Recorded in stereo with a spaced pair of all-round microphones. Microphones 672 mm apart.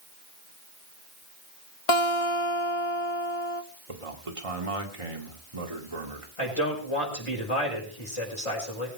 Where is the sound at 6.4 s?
50° left (ahead or behind), 5.5 m.